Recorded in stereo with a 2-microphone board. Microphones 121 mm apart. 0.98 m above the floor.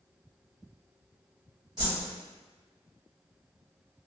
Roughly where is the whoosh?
Right.